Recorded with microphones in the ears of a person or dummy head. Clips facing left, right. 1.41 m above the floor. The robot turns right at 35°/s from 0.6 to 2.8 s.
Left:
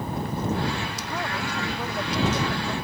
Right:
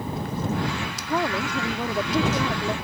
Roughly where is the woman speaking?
Behind right.